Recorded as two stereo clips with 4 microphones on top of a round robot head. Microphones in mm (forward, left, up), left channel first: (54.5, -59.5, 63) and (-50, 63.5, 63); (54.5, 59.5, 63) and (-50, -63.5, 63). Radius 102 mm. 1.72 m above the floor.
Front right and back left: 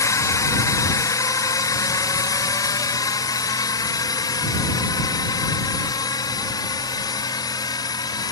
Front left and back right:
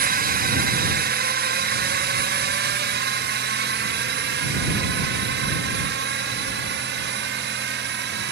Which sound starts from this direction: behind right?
A drone, at 0.0 s.